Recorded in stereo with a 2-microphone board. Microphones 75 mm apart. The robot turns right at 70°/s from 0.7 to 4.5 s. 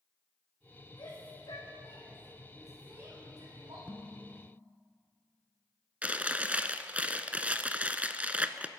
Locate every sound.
1.0 s a shout: 65° left (ahead or behind), 6.5 m; by 3.8 s 80° right, 6.5 m
3.9 s dishes clattering: 20° left (ahead or behind), 0.9 m; by 4.7 s centre (ahead or behind), 0.9 m
6.0 s chewing: 20° right (ahead or behind), 0.6 m